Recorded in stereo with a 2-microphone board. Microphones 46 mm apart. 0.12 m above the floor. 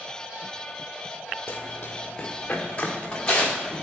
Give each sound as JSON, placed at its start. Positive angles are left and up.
{"t": 1.5, "sound": "running footsteps", "side_deg": 45, "distance_m": 1.2}